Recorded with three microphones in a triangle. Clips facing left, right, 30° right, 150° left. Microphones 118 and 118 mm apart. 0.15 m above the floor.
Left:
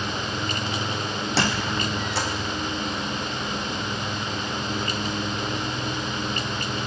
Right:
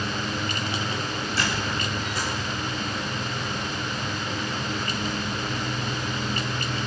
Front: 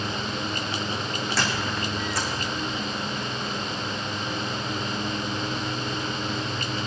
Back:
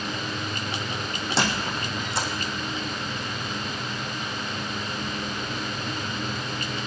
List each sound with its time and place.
1.4 s a squeak: 90° left, 2.5 m